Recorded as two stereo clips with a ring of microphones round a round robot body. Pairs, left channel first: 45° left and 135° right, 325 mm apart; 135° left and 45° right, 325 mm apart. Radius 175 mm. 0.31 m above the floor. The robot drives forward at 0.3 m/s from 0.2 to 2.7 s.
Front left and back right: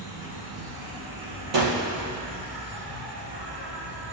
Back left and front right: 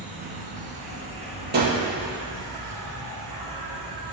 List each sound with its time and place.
0.0 s an insect: 110° right, 3.5 m; by 4.1 s 125° right, 3.5 m
1.5 s a gunshot: 105° right, 1.7 m; by 1.8 s 110° right, 1.7 m